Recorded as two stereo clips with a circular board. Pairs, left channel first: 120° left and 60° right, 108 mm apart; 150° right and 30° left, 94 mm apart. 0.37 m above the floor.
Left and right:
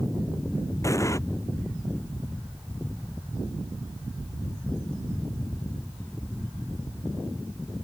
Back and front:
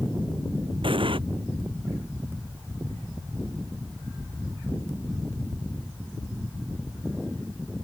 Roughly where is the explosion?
Ahead left.